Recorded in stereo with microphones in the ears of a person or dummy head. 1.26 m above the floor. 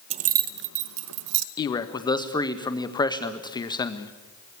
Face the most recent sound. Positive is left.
turn(degrees=20)  # may be behind; listen again after turning